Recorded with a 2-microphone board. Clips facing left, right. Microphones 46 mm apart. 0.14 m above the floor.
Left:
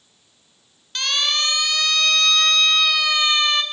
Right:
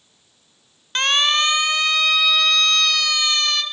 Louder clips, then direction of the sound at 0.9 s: Right 5 dB; 40° right (ahead or behind).